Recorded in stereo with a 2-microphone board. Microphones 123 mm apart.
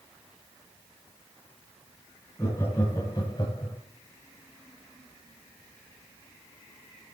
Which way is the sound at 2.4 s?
25° left (ahead or behind).